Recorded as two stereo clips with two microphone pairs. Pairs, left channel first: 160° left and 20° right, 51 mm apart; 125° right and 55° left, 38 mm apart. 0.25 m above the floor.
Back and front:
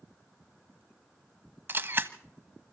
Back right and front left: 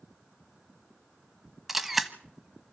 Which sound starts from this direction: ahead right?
A camera shutter, at 1.7 s.